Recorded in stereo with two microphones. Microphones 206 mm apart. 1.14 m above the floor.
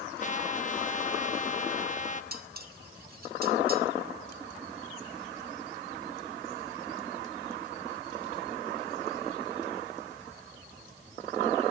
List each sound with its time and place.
0.2 s a trumpet: 35° left (ahead or behind), 1.5 m
2.3 s dishes clattering: 45° right (ahead or behind), 1.9 m